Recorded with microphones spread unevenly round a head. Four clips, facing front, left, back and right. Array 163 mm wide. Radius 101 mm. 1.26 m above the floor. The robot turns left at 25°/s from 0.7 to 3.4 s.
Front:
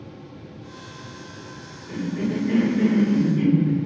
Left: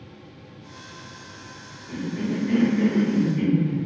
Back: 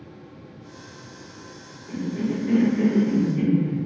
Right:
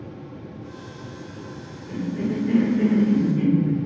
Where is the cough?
165° right, 1.2 m; by 3.9 s 160° left, 1.2 m.